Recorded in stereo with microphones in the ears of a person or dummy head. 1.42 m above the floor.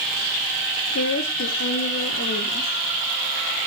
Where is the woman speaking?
80° left, 1.5 m; by 2.7 s 45° left (ahead or behind), 1.8 m.